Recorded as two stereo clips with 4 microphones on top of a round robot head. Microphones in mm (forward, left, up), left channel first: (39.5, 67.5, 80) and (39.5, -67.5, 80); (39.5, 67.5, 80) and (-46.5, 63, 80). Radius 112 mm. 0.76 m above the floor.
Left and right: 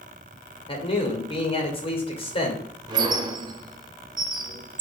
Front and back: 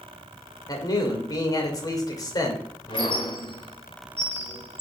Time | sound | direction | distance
0.7 | a man speaking | 45° left | 3 m
2.9 | a squeak | 45° right | 0.5 m